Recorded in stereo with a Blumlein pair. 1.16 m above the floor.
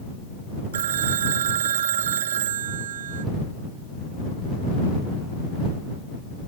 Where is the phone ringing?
60° right.